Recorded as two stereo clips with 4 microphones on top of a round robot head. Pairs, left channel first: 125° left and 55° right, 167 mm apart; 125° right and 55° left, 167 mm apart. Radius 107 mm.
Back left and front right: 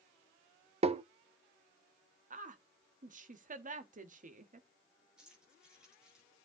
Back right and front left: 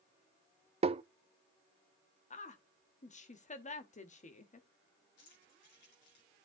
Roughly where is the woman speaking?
Right.